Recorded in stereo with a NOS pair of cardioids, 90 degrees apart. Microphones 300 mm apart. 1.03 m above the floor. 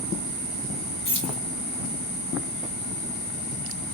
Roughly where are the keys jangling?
Ahead left.